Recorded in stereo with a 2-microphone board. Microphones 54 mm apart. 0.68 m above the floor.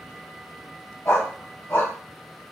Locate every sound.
1.1 s a dog barking: 50° left (ahead or behind), 1.4 m